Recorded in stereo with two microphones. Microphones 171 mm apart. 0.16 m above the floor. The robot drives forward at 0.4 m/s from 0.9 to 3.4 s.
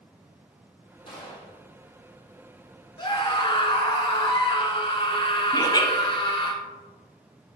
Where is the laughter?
25° left (ahead or behind), 1.1 m.